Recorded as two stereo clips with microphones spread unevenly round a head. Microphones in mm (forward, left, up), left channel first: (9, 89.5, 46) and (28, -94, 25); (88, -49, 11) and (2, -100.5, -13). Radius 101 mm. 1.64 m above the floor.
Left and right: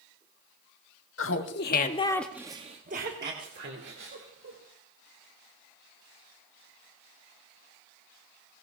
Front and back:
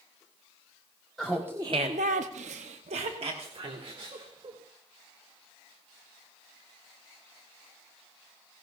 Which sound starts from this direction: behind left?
Laughter, at 1.2 s.